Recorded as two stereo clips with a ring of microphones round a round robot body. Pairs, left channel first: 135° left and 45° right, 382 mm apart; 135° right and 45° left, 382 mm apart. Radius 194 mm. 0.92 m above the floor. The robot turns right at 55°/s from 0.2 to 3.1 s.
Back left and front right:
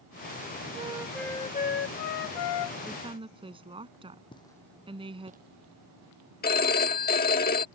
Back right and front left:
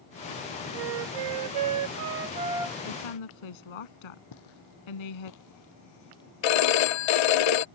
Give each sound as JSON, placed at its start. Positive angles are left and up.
{"t": 0.7, "sound": "a flute", "azimuth_deg": 25}
{"t": 2.9, "sound": "a woman speaking", "azimuth_deg": -135}
{"t": 4.3, "sound": "footsteps", "azimuth_deg": -150}
{"t": 6.4, "sound": "a phone ringing", "azimuth_deg": -155}